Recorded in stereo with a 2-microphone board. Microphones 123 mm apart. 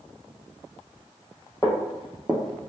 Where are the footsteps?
20° left (ahead or behind), 0.6 m; by 2.7 s 40° right (ahead or behind), 0.5 m.